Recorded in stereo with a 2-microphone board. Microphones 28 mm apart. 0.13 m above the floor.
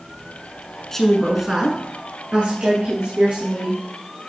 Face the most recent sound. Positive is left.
turn(degrees=-70)  # may be behind; listen again after turning